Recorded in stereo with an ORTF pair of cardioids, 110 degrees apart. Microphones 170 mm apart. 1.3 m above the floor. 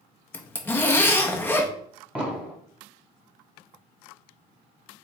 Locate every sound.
0.3 s a zipper: 15° left, 0.7 m
2.1 s an explosion: 10° right, 1.3 m